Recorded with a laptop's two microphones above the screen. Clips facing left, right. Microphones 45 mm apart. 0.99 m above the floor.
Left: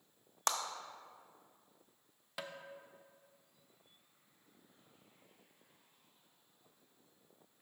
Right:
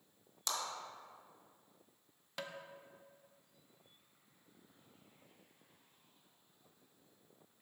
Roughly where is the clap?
Left.